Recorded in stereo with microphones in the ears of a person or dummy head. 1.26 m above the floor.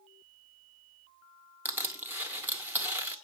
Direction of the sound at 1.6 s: 10° right (ahead or behind).